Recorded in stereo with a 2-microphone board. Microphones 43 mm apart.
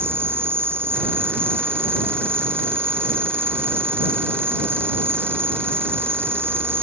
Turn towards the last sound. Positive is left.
turn(degrees=-60)  # may be behind; listen again after turning